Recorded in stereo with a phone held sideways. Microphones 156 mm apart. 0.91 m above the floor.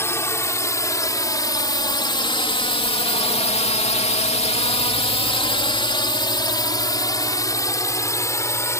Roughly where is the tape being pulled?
No tape being pulled in this recording.